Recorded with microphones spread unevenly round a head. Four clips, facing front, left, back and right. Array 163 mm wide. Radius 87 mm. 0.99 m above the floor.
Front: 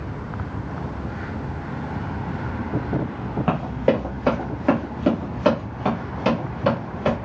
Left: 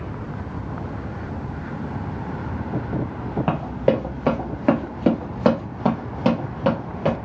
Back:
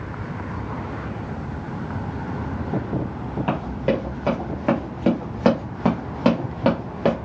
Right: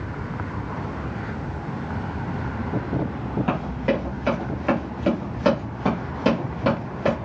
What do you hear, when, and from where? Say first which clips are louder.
3.5 s running footsteps: left 5 dB, front 3 dB; 70° left, 1.6 m; by 7.2 s 170° left, 1.7 m